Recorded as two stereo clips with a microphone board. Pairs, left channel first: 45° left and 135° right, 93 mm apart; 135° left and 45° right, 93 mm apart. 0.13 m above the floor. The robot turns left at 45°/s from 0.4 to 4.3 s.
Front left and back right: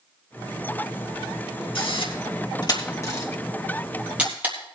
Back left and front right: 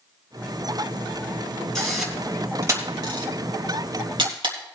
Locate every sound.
1.8 s a camera shutter: 50° left, 3 m; by 4.5 s 65° right, 3 m